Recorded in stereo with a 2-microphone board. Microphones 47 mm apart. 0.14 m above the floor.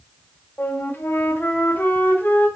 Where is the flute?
50° left (ahead or behind), 5 m.